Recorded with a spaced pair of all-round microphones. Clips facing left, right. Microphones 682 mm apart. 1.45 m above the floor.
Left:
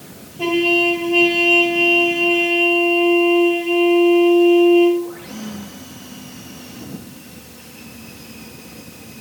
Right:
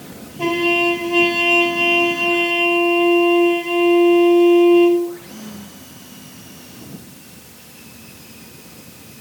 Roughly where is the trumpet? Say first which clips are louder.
Left 1 dB; right.